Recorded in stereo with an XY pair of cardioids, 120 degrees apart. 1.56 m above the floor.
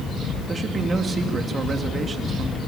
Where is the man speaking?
30° right, 2.5 m.